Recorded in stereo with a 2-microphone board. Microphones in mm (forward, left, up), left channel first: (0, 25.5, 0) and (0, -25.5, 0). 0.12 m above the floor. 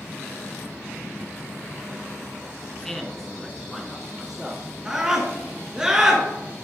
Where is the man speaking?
10° left (ahead or behind), 1.2 m; by 4.7 s 10° right (ahead or behind), 2 m.